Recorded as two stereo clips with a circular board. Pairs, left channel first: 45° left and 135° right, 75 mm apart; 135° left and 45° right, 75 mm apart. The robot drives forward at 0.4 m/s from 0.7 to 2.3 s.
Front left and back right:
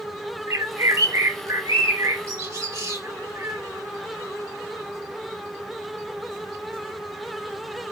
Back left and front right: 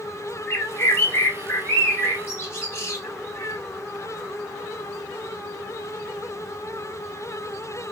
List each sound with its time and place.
0.5 s a bird: 170° right, 1.4 m; by 3.6 s 175° right, 2.0 m